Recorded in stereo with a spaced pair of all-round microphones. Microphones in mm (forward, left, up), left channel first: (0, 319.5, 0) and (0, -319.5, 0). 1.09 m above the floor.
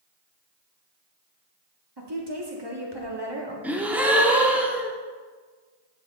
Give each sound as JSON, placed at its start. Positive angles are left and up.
{"t": 2.0, "sound": "a woman speaking", "side_deg": -40, "distance_m": 1.9}
{"t": 3.6, "sound": "a gasp", "side_deg": -5, "distance_m": 1.1}